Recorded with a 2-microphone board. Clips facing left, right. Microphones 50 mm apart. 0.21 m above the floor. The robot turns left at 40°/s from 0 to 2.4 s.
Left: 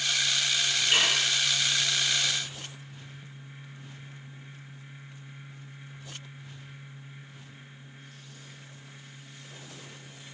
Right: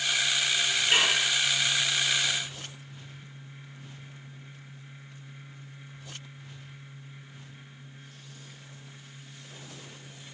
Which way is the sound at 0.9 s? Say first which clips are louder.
Right 1 dB; 35° right (ahead or behind).